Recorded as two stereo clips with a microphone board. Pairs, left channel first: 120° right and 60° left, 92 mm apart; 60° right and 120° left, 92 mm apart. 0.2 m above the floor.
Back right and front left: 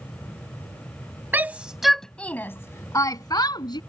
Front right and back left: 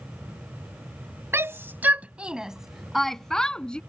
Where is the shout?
100° left; by 3.8 s 140° right.